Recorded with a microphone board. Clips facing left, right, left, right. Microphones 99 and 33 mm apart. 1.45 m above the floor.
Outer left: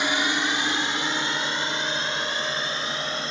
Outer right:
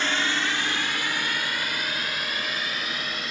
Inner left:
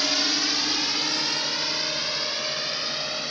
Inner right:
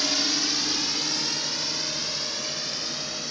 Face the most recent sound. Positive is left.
turn(degrees=30)  # may be behind; listen again after turning